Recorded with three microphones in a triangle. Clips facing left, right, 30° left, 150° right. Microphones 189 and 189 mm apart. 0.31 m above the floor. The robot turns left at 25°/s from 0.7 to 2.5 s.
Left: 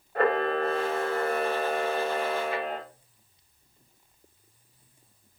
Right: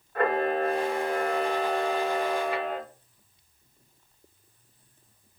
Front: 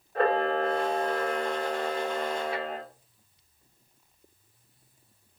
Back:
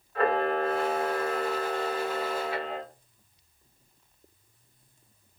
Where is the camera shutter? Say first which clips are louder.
Even, front 1 dB; 40° left, 1.7 m; by 2.8 s 5° right, 1.7 m.